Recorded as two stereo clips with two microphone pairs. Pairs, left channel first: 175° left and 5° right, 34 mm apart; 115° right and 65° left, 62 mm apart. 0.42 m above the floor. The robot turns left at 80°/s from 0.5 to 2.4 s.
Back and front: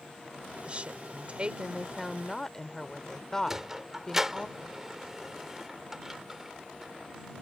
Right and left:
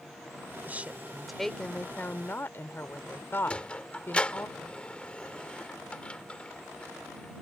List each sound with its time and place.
0.7 s a woman speaking: 30° left; by 4.5 s 110° right
3.5 s a sliding door: 70° right